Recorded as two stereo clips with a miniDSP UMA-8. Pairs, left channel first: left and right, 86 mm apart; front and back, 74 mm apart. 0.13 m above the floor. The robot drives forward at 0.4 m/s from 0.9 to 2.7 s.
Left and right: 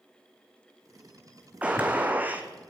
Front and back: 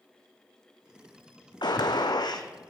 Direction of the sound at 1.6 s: 15° right.